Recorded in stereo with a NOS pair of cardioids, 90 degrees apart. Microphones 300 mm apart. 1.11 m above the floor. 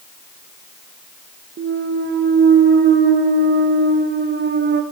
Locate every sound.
1.6 s a clunk: 40° right, 1.1 m